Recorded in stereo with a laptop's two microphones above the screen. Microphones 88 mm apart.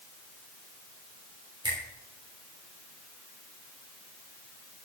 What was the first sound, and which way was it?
A finger snap, 55° right (ahead or behind).